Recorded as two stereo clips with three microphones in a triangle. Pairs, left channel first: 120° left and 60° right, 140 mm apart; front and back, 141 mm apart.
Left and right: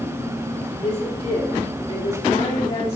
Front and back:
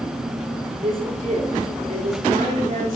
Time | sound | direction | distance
0.8 | a woman speaking | 160° left | 3 m